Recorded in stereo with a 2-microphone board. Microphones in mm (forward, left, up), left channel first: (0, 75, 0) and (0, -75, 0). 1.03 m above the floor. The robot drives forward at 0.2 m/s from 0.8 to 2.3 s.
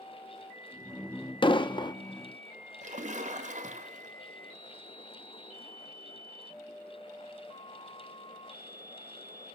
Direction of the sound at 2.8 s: 50° right (ahead or behind).